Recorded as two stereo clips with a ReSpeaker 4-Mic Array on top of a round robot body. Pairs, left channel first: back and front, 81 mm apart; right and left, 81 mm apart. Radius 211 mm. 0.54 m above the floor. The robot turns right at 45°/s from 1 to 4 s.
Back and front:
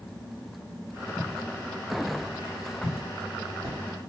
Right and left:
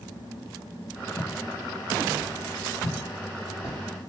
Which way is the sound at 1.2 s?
35° right.